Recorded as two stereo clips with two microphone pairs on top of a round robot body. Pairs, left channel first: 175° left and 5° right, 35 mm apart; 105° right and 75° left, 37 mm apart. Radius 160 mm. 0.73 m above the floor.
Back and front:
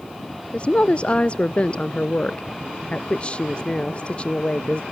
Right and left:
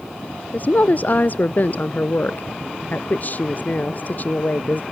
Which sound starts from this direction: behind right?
A woman speaking, at 0.5 s.